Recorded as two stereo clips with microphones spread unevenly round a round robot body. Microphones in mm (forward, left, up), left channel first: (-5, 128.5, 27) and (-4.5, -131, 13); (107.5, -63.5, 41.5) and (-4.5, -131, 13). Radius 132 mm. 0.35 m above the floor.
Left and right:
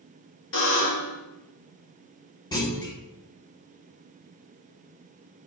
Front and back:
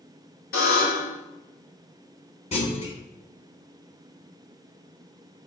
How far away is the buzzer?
About 2.5 m.